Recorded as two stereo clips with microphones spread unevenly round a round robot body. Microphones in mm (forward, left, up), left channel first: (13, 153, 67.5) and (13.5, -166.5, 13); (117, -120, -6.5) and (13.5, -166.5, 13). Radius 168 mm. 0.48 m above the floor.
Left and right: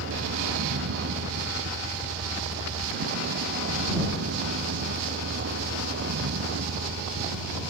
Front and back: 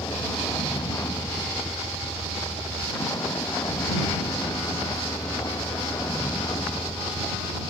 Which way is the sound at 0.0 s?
35° right.